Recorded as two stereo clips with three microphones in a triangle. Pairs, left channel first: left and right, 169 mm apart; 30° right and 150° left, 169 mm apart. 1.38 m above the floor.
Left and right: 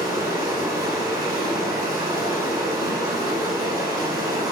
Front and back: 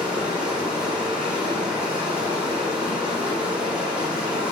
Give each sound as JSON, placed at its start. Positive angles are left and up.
{"t": 0.0, "sound": "running water", "azimuth_deg": -130, "distance_m": 1.4}